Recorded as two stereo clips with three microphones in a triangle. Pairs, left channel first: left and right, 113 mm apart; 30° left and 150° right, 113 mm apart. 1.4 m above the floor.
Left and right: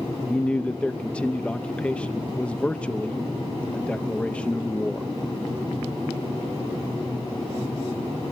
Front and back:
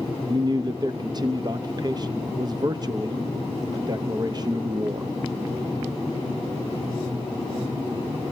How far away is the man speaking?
About 0.7 m.